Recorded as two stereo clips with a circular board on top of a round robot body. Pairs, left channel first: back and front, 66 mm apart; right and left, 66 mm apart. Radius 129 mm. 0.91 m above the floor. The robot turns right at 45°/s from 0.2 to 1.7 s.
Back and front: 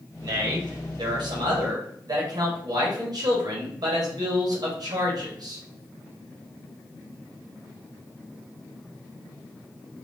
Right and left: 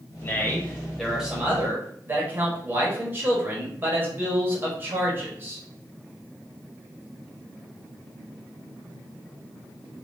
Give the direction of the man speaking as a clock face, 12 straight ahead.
1 o'clock.